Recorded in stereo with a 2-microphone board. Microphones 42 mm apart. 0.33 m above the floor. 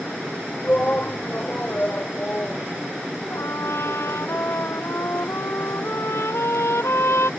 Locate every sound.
0.6 s a shout: 35° left (ahead or behind)
3.3 s a trumpet: 75° left (ahead or behind)